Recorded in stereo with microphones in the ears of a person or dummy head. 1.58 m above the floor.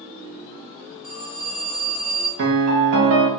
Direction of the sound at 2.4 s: 70° right (ahead or behind).